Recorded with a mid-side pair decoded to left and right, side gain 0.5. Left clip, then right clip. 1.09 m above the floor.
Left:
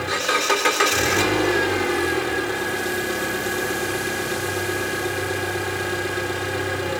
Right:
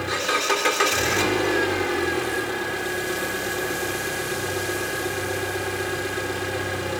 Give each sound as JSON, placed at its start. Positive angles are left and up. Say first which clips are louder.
{"t": 0.0, "sound": "an engine running", "louder": "left 2 dB", "azimuth_deg": 10, "distance_m": 3.0}